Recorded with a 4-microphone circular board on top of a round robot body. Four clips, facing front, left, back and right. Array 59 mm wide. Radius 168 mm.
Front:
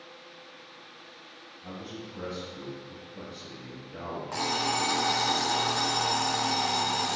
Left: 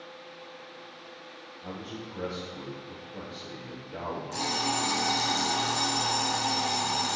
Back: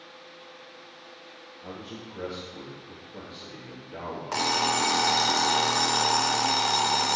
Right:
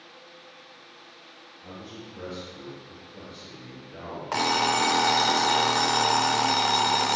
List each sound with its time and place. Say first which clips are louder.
1.6 s a man speaking: left 2 dB, even; 145° left, 3 m
4.3 s an alarm clock: right 8 dB, back 4 dB; 110° right, 0.6 m